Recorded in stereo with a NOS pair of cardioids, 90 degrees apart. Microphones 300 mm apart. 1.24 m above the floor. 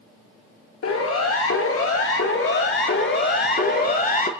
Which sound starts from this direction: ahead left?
A siren, at 0.8 s.